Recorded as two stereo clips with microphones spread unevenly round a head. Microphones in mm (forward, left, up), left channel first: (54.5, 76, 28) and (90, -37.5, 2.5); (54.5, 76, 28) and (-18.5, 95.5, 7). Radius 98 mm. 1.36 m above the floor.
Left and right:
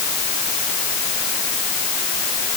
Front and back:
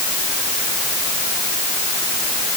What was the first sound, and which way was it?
Only background noise.